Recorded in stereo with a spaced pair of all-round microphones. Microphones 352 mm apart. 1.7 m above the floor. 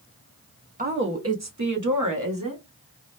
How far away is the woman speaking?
About 0.6 m.